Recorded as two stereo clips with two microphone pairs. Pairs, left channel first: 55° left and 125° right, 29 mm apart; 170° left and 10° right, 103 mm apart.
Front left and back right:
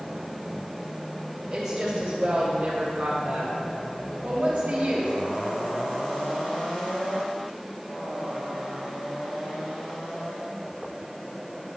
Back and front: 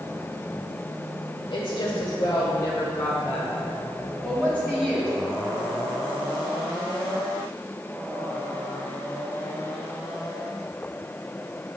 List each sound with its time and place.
1.5 s a woman speaking: 165° left, 1.4 m; by 5.1 s 80° right, 2 m